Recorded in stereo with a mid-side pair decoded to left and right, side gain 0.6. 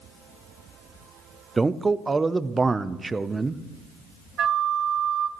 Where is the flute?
45° right, 0.9 m.